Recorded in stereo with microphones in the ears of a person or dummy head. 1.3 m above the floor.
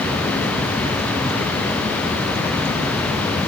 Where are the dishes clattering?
I don't hear dishes clattering.